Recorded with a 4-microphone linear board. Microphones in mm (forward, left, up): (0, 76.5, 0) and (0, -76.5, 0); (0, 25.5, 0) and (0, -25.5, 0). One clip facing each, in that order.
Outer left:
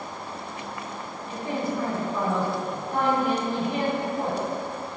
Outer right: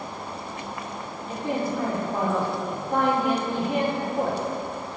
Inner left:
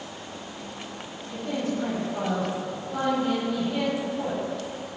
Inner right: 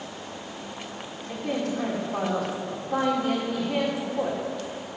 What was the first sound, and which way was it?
A man speaking, 80° right.